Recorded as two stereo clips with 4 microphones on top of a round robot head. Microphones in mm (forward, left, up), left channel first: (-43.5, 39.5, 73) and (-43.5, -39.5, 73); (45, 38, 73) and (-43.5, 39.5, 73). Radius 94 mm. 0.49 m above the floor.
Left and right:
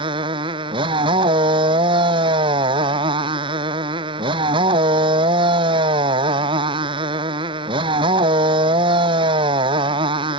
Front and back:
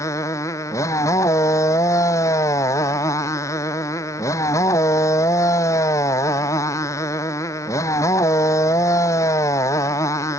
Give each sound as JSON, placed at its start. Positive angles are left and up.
{"t": 0.0, "sound": "a motorcycle", "azimuth_deg": -65}